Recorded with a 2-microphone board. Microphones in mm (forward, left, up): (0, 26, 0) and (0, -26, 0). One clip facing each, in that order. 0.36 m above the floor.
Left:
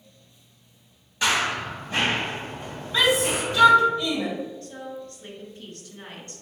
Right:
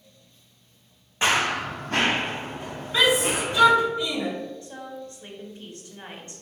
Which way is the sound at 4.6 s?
25° right (ahead or behind).